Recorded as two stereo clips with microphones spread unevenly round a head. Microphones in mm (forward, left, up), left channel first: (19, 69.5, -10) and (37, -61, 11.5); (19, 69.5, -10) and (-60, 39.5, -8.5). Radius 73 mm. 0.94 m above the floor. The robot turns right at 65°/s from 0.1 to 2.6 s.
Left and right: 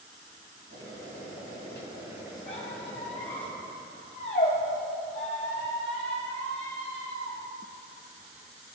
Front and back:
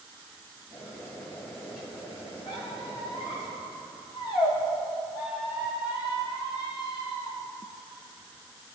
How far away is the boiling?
About 3 m.